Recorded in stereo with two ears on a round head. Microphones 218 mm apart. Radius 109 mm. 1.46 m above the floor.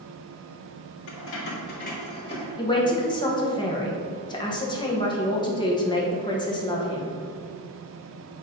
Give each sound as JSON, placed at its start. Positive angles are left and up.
{"t": 1.1, "sound": "keys jangling", "side_deg": 60, "distance_m": 1.8}
{"t": 2.6, "sound": "a man speaking", "side_deg": 20, "distance_m": 1.2}